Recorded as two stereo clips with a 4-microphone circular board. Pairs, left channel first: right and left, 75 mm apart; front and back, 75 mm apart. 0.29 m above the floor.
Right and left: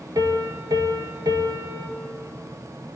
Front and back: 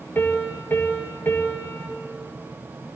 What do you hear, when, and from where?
0.1 s a piano: 60° left, 1.3 m